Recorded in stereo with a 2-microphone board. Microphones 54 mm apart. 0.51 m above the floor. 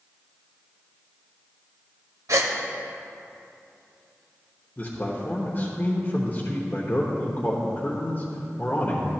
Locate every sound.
2.3 s a gasp: 75° right (ahead or behind), 1.0 m
4.8 s a man speaking: 40° left (ahead or behind), 1.1 m